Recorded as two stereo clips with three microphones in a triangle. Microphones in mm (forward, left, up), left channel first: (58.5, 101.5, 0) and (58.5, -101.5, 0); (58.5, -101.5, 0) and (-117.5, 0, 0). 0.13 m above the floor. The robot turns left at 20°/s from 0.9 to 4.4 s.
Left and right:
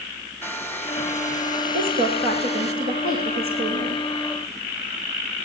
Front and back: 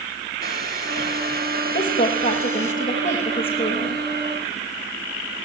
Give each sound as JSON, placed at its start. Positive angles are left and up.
{"t": 0.4, "sound": "a hair dryer", "azimuth_deg": 165, "distance_m": 2.0}
{"t": 1.7, "sound": "a woman speaking", "azimuth_deg": -60, "distance_m": 7.5}